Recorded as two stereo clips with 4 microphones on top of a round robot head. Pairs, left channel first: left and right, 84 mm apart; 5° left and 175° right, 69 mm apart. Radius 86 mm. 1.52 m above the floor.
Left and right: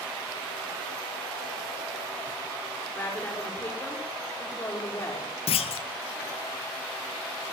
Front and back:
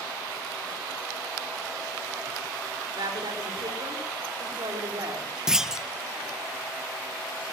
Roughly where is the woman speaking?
Behind.